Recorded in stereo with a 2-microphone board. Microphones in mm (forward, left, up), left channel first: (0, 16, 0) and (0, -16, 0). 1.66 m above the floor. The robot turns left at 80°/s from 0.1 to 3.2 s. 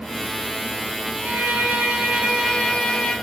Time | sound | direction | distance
1.2 | a violin | 80° right | 2 m